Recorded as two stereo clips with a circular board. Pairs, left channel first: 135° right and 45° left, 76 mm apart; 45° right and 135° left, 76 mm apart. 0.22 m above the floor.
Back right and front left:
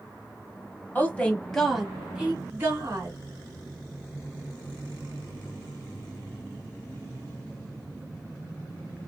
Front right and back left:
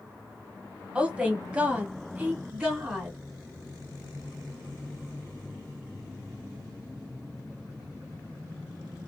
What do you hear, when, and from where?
0.9 s a woman speaking: 165° right, 1.1 m; by 3.2 s 65° left, 1.3 m